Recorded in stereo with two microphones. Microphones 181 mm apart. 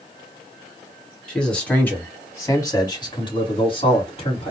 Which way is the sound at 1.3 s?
5° left (ahead or behind).